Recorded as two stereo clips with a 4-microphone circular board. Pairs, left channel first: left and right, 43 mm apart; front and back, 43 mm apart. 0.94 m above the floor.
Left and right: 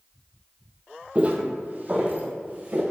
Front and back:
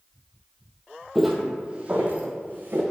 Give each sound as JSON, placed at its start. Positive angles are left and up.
{"t": 1.1, "sound": "footsteps", "azimuth_deg": -95, "distance_m": 1.1}